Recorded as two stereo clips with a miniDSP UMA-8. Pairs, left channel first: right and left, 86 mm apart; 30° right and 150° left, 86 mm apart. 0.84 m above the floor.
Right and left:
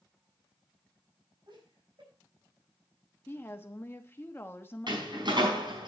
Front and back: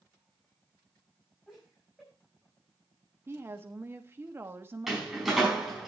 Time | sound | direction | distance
1.5 | laughter | 60° left | 6 m
3.3 | a woman speaking | 150° right | 1.0 m
4.9 | a door slam | 65° left | 5 m